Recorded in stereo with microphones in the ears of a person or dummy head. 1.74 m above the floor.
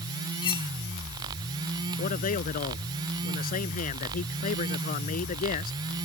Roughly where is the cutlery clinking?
Left.